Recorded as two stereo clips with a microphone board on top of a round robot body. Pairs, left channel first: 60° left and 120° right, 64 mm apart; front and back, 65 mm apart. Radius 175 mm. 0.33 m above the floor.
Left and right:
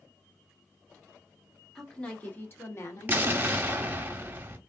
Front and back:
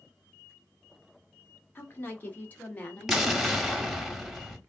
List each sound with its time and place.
1.8 s a woman speaking: 10° right, 1.2 m; by 4.1 s 70° left, 2 m
3.1 s an explosion: 95° right, 1.2 m